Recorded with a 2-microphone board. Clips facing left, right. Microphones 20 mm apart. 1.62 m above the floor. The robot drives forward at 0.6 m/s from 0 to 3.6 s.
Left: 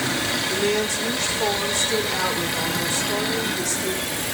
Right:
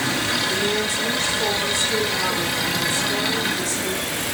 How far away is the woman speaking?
About 4 m.